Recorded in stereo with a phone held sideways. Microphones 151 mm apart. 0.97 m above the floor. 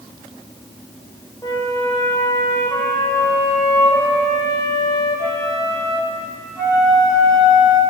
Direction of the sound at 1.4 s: 20° left (ahead or behind).